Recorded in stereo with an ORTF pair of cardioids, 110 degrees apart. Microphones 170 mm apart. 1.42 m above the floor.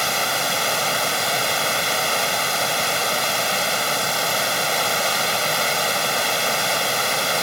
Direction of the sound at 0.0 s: Straight ahead.